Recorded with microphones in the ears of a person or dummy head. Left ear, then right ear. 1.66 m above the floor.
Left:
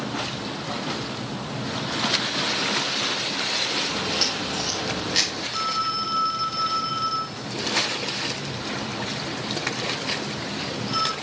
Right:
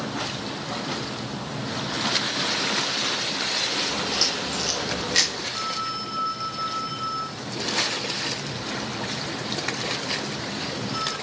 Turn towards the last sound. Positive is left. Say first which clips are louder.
# left 3 dB
turn(degrees=30)  # may be behind; listen again after turning